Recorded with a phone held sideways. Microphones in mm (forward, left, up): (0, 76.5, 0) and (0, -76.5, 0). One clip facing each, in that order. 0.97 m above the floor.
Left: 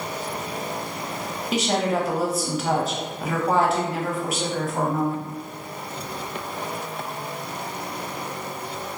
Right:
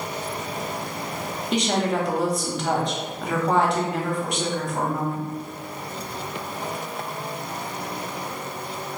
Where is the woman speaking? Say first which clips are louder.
Even; 5° left (ahead or behind), 0.7 m.